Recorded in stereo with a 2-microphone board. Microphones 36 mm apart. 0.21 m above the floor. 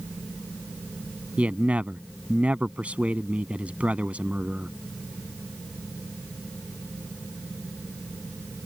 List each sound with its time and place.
1.4 s a man speaking: 45° right (ahead or behind)